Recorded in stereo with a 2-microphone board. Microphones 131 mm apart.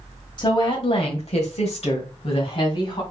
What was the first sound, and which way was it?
A woman speaking, 35° left (ahead or behind).